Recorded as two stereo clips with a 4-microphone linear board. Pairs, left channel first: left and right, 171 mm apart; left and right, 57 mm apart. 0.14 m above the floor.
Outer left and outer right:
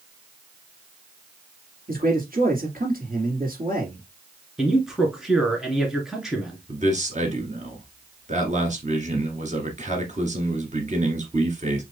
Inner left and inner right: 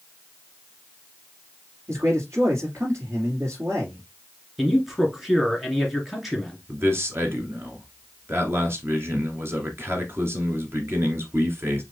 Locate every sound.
1.9 s a man speaking: 60° right (ahead or behind), 3 m
4.6 s a man speaking: 5° right (ahead or behind), 2 m
6.7 s a man speaking: 45° right (ahead or behind), 1.8 m